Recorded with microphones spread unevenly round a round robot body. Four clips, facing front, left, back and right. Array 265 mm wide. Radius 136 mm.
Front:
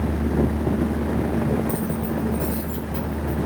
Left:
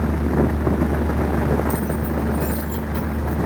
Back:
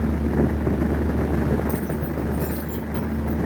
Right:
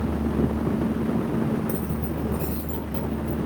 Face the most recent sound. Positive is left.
turn(degrees=-115)